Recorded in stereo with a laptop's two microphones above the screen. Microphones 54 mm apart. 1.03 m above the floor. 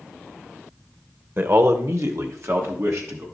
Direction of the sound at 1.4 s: 45° right (ahead or behind).